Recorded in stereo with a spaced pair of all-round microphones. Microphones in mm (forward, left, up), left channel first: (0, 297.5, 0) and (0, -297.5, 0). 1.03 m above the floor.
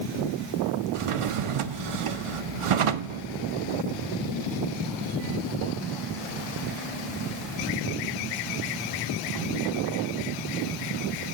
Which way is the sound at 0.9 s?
60° right (ahead or behind).